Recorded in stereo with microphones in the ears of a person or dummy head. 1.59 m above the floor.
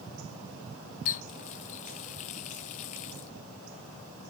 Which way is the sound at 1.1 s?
25° left (ahead or behind).